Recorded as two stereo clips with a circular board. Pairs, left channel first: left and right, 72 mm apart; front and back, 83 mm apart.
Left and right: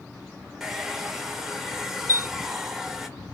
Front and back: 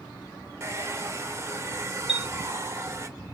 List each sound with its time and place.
0.6 s a hair dryer: 170° right, 1.0 m
2.1 s a chime: 105° left, 1.9 m